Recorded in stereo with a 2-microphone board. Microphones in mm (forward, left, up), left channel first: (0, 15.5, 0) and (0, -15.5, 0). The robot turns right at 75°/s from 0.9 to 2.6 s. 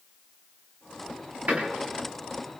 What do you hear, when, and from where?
1.5 s a door slam: 85° right, 7 m; by 1.6 s 80° right, 7 m